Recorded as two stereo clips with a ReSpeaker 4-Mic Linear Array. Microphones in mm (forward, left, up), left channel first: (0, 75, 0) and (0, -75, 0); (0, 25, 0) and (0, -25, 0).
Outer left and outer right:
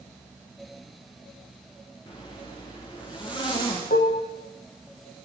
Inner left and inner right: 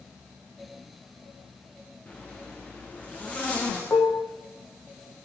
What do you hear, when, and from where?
2.1 s a zipper: 30° left (ahead or behind), 9 m
3.9 s dishes clattering: 70° left (ahead or behind), 4.5 m